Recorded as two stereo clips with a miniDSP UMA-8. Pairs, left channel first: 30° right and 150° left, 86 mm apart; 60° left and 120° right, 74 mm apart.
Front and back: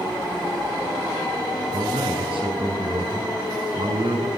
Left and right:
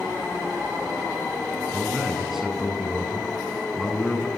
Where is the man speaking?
155° left, 7.5 m.